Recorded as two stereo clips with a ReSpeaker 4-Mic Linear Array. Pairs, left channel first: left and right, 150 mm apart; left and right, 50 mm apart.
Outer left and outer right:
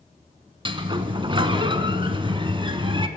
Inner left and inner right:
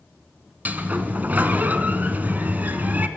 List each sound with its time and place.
0.7 s a sliding door: 35° right (ahead or behind), 0.7 m